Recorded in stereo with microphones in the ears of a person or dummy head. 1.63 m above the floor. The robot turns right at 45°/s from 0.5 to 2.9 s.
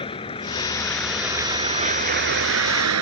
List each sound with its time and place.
0.0 s a vehicle: 155° left; by 3.0 s 95° right